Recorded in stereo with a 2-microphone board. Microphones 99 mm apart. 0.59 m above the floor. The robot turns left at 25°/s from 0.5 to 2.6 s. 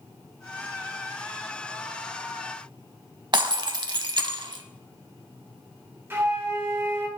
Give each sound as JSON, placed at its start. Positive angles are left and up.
{"t": 3.3, "sound": "breaking glass", "side_deg": -50, "distance_m": 0.5}
{"t": 6.1, "sound": "a flute", "side_deg": -25, "distance_m": 1.0}